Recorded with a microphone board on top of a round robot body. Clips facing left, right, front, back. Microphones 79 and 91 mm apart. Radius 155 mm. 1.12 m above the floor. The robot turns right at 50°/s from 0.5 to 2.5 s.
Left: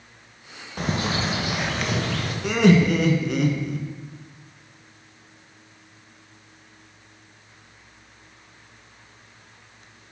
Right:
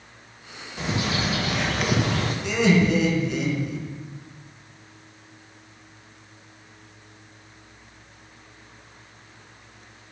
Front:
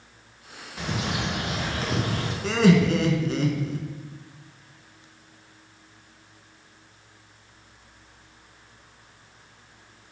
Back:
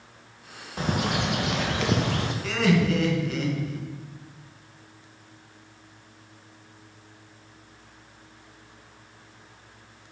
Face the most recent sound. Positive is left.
turn(degrees=60)